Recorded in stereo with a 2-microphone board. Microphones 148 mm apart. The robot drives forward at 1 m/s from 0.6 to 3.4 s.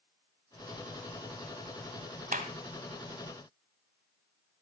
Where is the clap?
70° right (ahead or behind), 1.9 m.